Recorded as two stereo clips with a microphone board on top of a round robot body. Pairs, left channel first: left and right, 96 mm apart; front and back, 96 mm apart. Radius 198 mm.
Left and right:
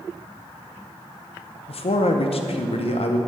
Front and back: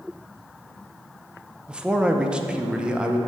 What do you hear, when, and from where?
1.7 s a man speaking: 100° left, 0.8 m